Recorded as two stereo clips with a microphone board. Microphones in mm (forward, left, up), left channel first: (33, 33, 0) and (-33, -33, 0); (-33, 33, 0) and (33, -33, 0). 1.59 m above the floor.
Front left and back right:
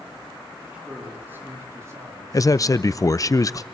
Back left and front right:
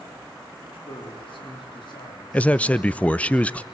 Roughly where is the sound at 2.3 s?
Ahead left.